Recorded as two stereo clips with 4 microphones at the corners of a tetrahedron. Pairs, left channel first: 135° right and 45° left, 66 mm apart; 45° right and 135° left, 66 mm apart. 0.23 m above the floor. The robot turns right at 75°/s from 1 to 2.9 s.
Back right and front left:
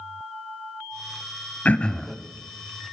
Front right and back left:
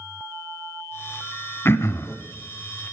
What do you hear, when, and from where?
1.6 s throat clearing: 80° right, 0.5 m; by 2.2 s 40° right, 0.5 m